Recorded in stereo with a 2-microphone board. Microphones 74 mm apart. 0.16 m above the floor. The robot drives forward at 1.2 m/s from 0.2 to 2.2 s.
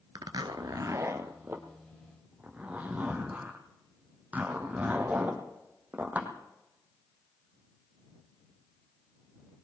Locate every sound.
0.1 s a zipper: 65° right (ahead or behind), 0.9 m; by 6.3 s 20° right (ahead or behind), 2.5 m